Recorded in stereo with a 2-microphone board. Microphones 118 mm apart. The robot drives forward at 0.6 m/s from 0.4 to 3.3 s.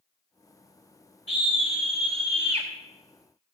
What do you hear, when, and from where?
1.3 s a scream: 40° right (ahead or behind), 1.6 m; by 2.7 s 55° right (ahead or behind), 1.2 m